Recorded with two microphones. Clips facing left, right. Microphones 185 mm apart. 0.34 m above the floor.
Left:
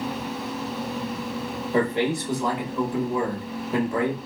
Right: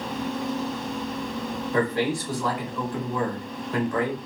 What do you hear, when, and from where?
1.7 s a man speaking: 20° left (ahead or behind), 0.9 m